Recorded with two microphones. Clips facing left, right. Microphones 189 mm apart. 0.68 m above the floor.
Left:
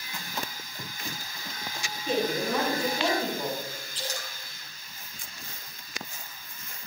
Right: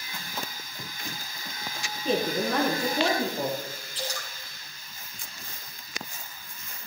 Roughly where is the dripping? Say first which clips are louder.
Right 2 dB; right.